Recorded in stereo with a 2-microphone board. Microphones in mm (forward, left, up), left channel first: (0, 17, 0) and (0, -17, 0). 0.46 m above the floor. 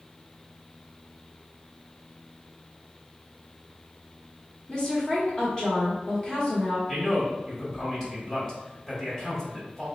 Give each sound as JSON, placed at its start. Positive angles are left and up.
{"t": 4.7, "sound": "a woman speaking", "side_deg": 25, "distance_m": 0.8}
{"t": 6.9, "sound": "a man speaking", "side_deg": 20, "distance_m": 1.3}